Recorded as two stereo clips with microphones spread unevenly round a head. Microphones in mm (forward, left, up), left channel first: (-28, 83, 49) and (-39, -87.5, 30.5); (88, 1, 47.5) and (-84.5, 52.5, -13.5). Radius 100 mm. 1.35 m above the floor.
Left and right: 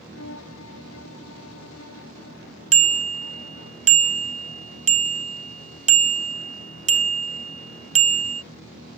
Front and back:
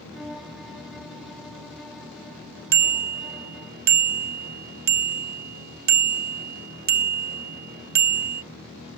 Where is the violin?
75° left.